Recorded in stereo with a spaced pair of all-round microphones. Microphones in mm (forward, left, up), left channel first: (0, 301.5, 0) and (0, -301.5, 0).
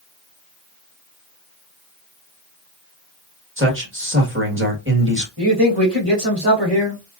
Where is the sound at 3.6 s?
20° right (ahead or behind), 1.7 m.